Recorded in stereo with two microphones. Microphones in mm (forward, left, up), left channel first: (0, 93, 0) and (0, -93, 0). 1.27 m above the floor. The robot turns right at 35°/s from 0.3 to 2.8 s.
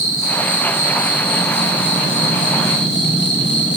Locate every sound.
0.0 s an insect: 20° left, 7 m; by 3.8 s 105° left, 7 m